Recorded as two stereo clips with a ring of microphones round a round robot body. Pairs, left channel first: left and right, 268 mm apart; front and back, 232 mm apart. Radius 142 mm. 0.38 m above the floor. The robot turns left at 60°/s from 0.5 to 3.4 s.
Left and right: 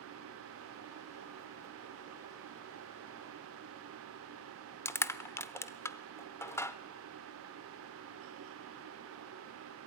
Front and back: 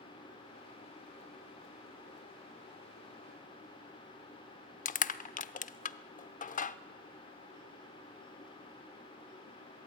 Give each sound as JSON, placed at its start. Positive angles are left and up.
{"t": 4.8, "sound": "crushing", "azimuth_deg": 15, "distance_m": 0.7}